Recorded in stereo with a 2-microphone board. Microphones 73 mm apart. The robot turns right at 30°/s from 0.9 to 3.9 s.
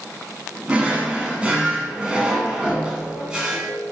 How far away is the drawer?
About 0.8 m.